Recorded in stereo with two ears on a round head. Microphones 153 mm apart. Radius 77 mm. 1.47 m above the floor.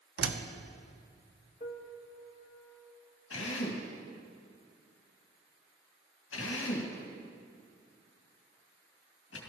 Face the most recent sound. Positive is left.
turn(degrees=80)